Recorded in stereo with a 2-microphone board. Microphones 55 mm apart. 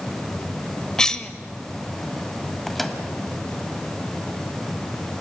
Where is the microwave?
5° left (ahead or behind), 1.7 m.